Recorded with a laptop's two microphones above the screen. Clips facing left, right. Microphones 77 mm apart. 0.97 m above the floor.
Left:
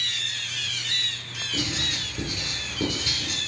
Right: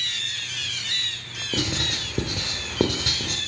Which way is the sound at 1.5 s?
70° right (ahead or behind).